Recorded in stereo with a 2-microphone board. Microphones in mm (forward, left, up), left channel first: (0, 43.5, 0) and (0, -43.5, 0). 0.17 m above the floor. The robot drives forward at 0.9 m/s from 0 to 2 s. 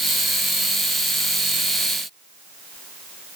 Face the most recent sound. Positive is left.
No sound to turn to.